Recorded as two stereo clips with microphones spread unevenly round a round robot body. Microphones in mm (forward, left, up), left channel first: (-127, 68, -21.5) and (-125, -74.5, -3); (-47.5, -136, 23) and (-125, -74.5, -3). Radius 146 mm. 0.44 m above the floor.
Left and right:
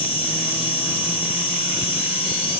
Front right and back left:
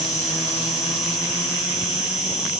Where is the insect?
90° left, 2 m.